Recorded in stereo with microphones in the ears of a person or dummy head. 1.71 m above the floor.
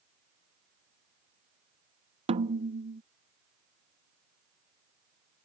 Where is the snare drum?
35° right (ahead or behind).